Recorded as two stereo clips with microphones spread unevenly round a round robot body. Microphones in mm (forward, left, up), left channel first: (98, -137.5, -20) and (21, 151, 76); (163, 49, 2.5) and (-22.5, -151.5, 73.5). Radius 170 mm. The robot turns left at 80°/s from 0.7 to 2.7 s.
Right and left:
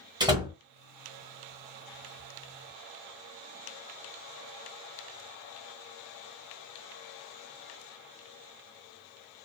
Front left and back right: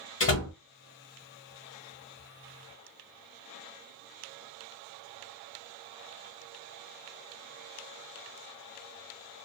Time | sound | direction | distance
0.2 | a door slam | 20° left | 1.0 m